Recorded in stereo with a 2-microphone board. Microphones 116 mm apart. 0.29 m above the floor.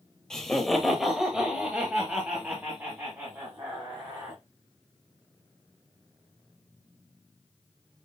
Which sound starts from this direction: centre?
Laughter, at 0.3 s.